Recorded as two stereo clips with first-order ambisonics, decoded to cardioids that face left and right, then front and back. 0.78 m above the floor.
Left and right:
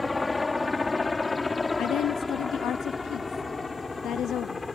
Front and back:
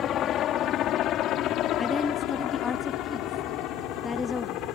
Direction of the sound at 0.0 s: 15° left.